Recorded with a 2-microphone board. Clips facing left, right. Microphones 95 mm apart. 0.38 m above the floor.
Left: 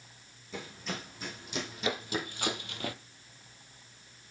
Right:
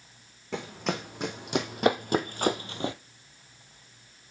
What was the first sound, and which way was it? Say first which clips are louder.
Running footsteps: right 8 dB; 80° right.